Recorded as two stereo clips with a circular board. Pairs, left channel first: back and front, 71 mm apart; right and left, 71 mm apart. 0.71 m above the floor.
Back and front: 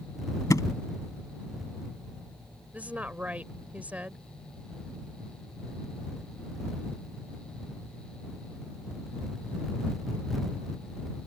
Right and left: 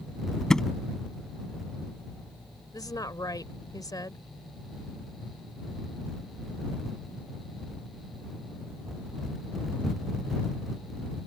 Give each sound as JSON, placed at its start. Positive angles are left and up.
{"t": 0.5, "sound": "a thud", "azimuth_deg": -170}
{"t": 2.7, "sound": "a woman speaking", "azimuth_deg": -70}